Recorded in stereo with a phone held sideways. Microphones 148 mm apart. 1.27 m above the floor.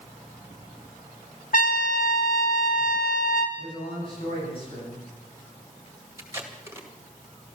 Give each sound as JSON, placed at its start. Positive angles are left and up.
{"t": 1.5, "sound": "a trumpet", "side_deg": 65, "distance_m": 1.5}
{"t": 3.6, "sound": "a man speaking", "side_deg": 40, "distance_m": 7.5}
{"t": 6.2, "sound": "tape being pulled", "side_deg": -20, "distance_m": 1.9}